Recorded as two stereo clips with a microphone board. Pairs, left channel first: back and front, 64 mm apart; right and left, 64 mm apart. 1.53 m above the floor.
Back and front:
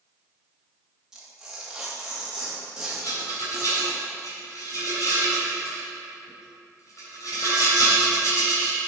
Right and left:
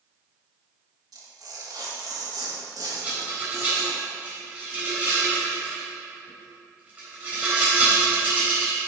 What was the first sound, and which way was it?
Tearing paper, 80° left.